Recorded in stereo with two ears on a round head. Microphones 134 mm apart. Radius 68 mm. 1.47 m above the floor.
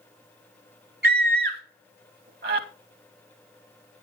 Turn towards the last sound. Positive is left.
turn(degrees=-65)  # may be behind; listen again after turning